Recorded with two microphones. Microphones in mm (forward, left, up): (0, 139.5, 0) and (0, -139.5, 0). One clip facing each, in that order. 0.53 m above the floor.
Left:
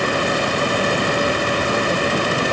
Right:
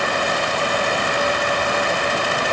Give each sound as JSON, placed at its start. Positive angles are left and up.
{"t": 0.0, "sound": "running water", "side_deg": 40}